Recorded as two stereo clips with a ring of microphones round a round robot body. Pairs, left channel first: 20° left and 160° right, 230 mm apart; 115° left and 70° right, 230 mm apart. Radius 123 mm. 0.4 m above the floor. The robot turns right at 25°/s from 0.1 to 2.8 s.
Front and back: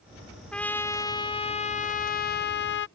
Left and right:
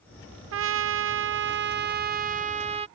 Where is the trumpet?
65° right; by 2.9 s 5° right.